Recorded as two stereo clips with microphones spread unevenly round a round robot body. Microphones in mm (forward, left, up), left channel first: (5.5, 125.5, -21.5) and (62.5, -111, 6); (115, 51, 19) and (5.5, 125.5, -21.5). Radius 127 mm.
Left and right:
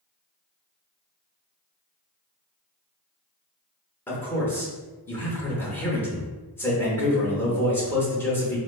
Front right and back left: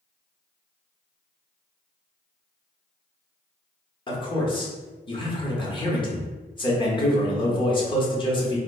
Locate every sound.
4.1 s a man speaking: 30° left, 1.1 m